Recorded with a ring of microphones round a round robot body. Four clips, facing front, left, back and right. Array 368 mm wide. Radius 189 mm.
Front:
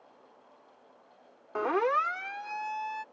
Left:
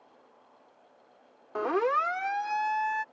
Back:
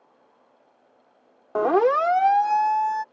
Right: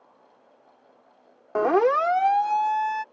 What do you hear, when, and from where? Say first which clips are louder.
1.6 s a siren: right 7 dB, back 8 dB; 140° right; by 3.0 s 165° right